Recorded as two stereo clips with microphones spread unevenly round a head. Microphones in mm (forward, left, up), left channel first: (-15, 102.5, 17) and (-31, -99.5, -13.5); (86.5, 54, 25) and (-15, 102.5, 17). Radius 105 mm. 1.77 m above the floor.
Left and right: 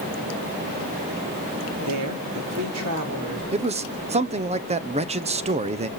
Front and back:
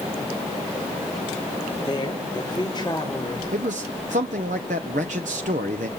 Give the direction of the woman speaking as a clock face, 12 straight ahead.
3 o'clock.